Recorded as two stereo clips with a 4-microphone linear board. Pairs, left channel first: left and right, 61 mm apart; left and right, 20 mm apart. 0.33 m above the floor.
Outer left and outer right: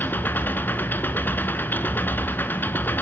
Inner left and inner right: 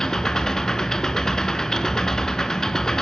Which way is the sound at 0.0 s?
30° left (ahead or behind).